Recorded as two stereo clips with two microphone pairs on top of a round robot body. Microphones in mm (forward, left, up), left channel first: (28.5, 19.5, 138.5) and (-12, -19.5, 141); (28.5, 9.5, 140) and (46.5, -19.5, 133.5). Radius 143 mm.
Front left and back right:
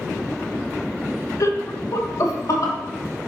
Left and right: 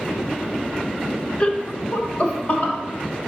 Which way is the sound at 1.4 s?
60° left.